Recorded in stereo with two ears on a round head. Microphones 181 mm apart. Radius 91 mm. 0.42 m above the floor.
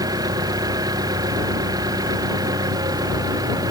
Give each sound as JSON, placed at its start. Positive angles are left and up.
{"t": 0.0, "sound": "an engine running", "side_deg": -20}